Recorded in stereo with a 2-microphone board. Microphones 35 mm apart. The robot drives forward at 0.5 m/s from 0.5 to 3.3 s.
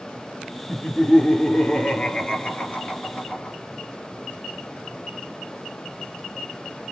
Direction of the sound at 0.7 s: 25° left (ahead or behind).